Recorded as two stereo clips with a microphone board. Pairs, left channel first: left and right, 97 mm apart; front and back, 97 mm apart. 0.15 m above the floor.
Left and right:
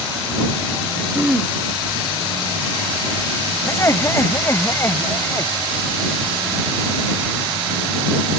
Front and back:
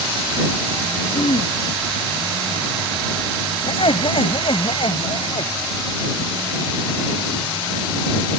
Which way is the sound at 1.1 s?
10° right.